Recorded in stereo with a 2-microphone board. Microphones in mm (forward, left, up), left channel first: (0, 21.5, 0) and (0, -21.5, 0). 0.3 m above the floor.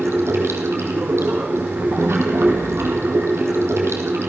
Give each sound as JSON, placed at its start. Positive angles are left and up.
{"t": 0.0, "sound": "running water", "side_deg": -80, "distance_m": 3.5}